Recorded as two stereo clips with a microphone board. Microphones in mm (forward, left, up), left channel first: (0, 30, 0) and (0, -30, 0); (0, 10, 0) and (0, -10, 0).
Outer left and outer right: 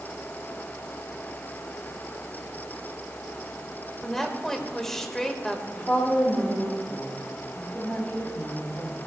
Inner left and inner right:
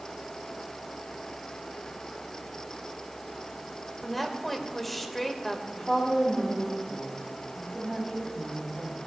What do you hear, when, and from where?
4.0 s a woman speaking: 5° left (ahead or behind), 1.6 m
5.7 s a woman speaking: 30° left (ahead or behind), 3.5 m